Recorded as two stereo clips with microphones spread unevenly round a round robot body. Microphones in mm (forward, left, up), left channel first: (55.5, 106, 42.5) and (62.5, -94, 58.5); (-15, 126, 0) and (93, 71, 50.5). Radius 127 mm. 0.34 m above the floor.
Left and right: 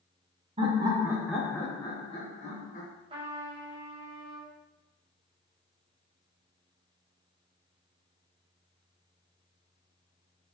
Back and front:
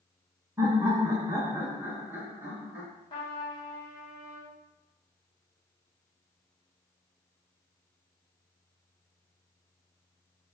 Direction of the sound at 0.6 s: 120° right.